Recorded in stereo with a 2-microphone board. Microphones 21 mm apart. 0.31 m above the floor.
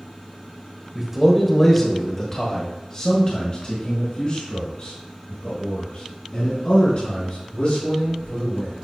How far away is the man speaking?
About 1.4 m.